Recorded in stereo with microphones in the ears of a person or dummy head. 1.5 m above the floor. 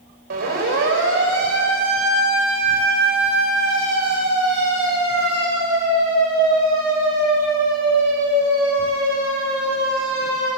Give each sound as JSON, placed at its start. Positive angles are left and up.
{"t": 0.3, "sound": "a siren", "side_deg": -60, "distance_m": 5.5}